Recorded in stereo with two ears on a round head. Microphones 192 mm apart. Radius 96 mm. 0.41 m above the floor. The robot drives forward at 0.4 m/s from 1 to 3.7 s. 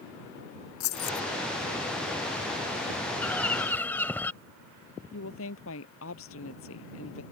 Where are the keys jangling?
75° left (ahead or behind).